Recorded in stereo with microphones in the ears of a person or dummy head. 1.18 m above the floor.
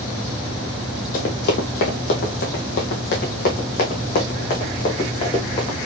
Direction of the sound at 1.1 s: 45° left (ahead or behind).